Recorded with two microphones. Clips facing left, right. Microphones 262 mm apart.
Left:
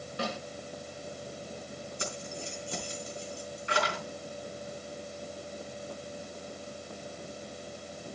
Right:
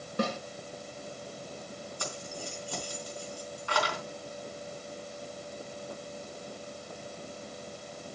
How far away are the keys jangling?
About 4 m.